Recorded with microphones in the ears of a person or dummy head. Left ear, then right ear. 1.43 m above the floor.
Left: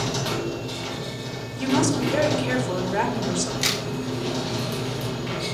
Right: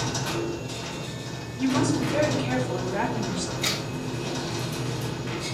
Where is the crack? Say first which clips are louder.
Left 2 dB; 60° left (ahead or behind), 1.4 m.